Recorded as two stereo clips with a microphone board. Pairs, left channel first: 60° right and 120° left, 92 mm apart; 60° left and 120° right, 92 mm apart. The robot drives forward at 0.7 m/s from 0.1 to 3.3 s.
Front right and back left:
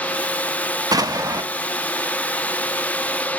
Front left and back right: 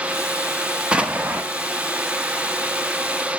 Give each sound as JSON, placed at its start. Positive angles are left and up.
{"t": 0.9, "sound": "an explosion", "azimuth_deg": 160, "distance_m": 0.7}